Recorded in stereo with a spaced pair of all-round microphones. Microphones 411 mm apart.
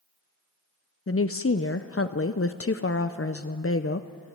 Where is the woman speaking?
35° left (ahead or behind), 0.6 m.